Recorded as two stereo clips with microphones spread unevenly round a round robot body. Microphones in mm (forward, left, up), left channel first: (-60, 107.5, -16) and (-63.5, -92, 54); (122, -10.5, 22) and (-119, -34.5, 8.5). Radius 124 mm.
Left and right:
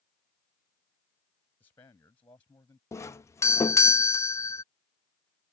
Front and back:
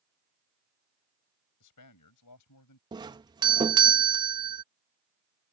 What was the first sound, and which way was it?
A man speaking, 10° left.